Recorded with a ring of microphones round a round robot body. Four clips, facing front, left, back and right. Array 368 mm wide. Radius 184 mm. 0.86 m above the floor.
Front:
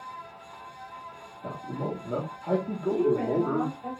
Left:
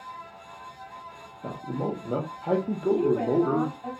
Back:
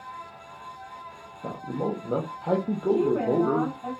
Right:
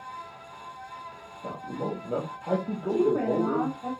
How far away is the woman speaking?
About 1.4 m.